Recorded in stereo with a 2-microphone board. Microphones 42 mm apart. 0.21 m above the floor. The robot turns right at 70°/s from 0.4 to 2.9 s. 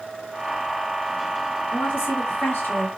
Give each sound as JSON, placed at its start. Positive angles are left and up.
{"t": 1.7, "sound": "a woman speaking", "azimuth_deg": 35, "distance_m": 2.5}